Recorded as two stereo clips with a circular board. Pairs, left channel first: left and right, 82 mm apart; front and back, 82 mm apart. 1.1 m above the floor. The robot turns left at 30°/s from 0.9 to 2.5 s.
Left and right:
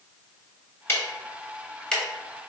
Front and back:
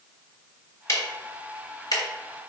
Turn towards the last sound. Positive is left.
turn(degrees=-5)